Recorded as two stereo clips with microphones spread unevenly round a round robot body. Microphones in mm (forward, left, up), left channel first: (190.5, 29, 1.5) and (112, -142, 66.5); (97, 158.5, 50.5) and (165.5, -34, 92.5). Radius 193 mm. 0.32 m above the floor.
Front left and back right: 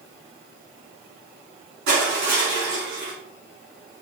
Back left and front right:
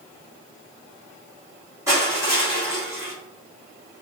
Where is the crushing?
150° right, 4.5 m.